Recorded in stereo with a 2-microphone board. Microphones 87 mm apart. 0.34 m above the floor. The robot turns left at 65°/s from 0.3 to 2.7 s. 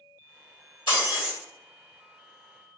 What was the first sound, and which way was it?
Breaking glass, 90° left.